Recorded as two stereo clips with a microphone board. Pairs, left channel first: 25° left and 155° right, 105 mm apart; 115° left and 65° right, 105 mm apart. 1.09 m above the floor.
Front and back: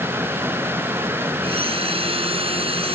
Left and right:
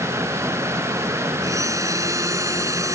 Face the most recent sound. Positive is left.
turn(degrees=-130)